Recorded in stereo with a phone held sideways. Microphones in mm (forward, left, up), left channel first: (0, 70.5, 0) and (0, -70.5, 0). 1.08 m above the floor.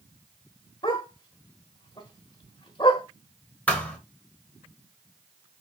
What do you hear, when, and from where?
0.8 s a dog barking: 35° left (ahead or behind), 1.2 m
3.7 s a thud: 10° left (ahead or behind), 1.2 m